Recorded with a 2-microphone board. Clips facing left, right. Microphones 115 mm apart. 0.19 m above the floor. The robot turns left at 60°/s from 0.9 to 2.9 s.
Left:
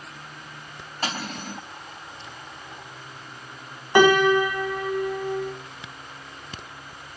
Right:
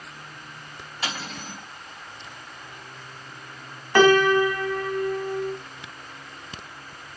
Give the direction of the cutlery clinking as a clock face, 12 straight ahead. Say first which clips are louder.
Left 3 dB; 7 o'clock.